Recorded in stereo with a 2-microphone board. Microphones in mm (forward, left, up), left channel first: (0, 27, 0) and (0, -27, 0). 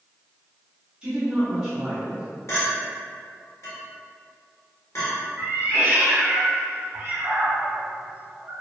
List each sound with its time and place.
1.0 s a woman speaking: 15° right (ahead or behind), 1.0 m; by 2.2 s 10° right (ahead or behind), 1.5 m
2.5 s a clink: 60° left (ahead or behind), 1.4 m
5.4 s a cat meowing: 55° right (ahead or behind), 0.7 m